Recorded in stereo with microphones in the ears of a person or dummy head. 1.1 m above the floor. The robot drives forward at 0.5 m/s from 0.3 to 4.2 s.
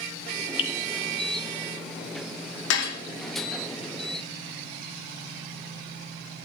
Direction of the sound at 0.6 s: 40° left (ahead or behind).